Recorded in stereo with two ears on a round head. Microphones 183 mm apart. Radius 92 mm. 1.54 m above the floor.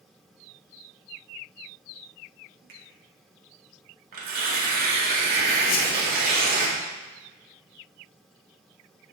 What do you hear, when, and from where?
2.7 s a finger snap: 50° right (ahead or behind), 1.6 m
4.1 s tearing paper: 45° right (ahead or behind), 1.7 m
5.7 s a whoosh: 45° left (ahead or behind), 0.7 m